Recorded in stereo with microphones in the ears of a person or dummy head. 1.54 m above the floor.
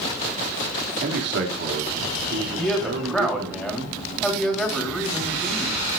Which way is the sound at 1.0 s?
65° right (ahead or behind).